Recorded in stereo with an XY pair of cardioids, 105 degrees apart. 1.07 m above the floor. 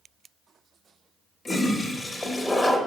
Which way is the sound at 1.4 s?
20° left.